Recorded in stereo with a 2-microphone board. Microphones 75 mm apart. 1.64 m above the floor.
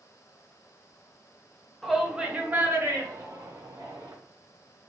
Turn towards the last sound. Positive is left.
turn(degrees=-70)  # may be behind; listen again after turning